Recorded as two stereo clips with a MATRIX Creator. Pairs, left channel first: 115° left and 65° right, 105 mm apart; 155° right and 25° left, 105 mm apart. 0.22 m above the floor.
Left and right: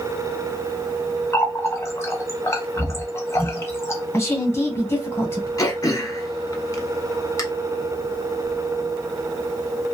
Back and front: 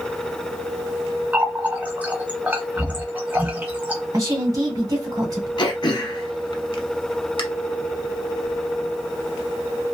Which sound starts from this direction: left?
A running tap, at 1.3 s.